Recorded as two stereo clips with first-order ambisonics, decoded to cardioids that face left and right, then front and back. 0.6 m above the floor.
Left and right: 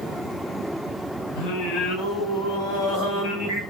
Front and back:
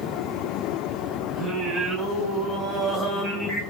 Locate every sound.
1.4 s singing: 115° left, 3 m